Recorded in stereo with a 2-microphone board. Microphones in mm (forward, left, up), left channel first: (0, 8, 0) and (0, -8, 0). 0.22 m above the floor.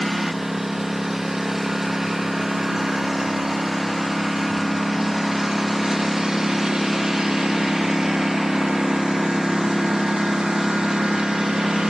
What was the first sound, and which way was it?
A lawn mower, 10° right (ahead or behind).